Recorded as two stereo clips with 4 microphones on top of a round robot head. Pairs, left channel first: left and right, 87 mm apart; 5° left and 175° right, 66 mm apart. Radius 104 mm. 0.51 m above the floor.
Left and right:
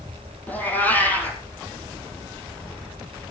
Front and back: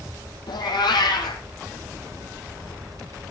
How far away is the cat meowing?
About 3 m.